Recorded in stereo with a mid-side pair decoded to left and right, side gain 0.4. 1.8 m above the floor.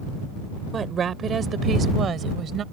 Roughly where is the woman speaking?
Ahead right.